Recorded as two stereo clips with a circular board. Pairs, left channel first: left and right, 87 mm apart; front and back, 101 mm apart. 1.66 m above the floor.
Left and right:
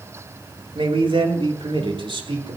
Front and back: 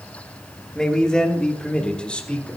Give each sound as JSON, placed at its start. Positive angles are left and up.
{"t": 0.8, "sound": "a man speaking", "azimuth_deg": -85, "distance_m": 3.0}